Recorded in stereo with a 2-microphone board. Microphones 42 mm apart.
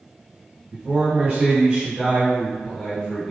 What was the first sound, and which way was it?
A man speaking, 40° right (ahead or behind).